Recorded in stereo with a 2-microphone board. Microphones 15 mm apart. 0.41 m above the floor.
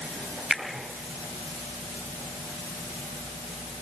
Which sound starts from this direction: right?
A finger snap, at 0.5 s.